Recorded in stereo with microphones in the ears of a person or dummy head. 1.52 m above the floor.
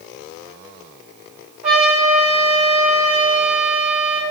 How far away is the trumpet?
About 1.1 m.